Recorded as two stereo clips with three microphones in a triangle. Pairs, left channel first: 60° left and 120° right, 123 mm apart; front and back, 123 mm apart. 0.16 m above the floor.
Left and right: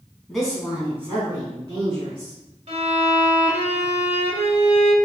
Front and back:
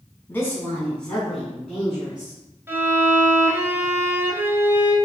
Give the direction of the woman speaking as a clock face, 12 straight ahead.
1 o'clock.